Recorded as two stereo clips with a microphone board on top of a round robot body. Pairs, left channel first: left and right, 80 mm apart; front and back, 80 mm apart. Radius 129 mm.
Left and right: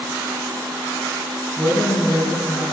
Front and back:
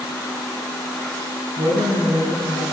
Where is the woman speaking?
Straight behind, 10 m.